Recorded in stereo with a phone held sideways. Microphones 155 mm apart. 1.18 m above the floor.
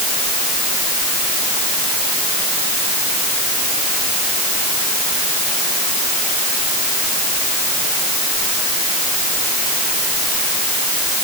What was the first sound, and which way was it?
Only background noise.